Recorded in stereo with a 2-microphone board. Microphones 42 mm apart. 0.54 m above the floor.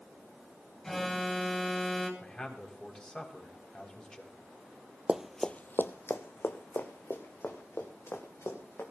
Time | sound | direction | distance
0.8 | an alarm | 10° left (ahead or behind) | 3 m
2.2 | a man speaking | 20° left (ahead or behind) | 3.5 m
5.1 | running footsteps | 25° right (ahead or behind) | 0.7 m